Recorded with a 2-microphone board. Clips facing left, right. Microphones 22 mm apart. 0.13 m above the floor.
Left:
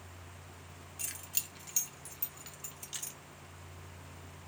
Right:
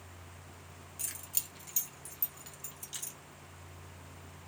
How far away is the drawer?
No drawer in this recording.